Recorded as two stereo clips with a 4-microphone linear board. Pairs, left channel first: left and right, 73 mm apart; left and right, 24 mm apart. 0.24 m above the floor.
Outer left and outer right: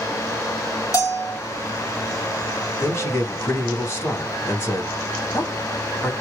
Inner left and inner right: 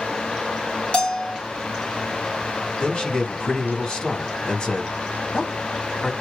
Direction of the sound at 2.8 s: 35° left (ahead or behind).